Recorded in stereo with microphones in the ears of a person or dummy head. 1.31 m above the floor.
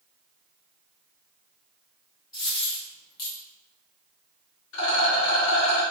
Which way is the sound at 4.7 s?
65° left (ahead or behind).